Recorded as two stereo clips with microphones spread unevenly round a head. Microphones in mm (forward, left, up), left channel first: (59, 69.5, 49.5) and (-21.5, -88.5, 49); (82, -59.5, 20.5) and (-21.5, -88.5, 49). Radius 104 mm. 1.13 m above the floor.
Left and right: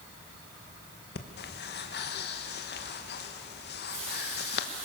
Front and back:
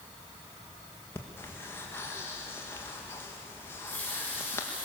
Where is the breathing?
80° left, 1.6 m.